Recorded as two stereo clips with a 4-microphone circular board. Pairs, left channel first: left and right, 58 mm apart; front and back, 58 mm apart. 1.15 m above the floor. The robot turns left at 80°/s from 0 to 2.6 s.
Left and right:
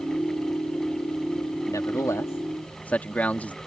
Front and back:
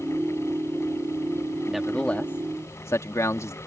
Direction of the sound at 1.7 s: 100° left.